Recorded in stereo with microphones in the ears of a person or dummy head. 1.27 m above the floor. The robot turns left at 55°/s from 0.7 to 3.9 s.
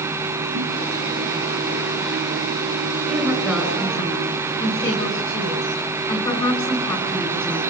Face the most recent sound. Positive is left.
turn(degrees=155)